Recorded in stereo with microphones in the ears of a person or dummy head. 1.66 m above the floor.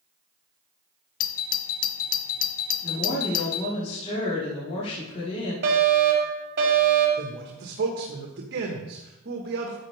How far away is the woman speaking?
About 5 m.